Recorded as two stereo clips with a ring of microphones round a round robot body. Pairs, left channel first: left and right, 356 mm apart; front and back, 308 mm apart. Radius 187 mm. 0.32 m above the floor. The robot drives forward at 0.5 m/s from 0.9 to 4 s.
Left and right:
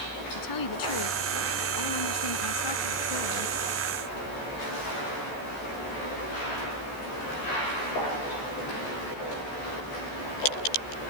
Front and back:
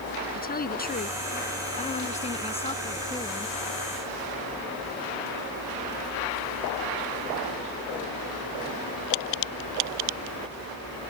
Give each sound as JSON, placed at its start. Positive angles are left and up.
{"t": 0.3, "sound": "a woman speaking", "azimuth_deg": 60}